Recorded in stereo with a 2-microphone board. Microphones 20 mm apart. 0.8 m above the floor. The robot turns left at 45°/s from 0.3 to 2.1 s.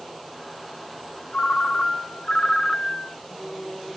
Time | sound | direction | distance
1.3 | a ringtone | 85° left | 0.6 m